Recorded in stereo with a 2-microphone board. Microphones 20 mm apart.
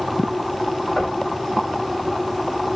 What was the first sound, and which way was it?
Knocking, 55° left (ahead or behind).